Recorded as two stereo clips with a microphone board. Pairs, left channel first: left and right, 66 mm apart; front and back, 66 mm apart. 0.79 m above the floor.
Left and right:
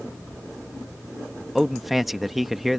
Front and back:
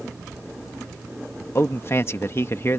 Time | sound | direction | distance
1.6 | a man speaking | 5° right | ?